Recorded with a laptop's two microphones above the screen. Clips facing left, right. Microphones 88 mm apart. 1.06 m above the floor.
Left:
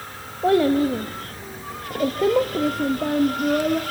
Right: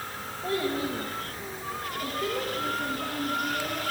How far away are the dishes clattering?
I don't hear dishes clattering.